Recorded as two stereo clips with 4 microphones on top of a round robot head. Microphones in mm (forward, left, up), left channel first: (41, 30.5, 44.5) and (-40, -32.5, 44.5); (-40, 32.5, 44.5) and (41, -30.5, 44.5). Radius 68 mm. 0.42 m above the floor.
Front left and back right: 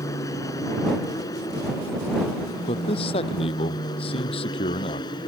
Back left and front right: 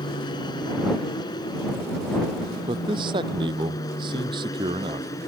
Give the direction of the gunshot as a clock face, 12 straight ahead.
No gunshot in this recording.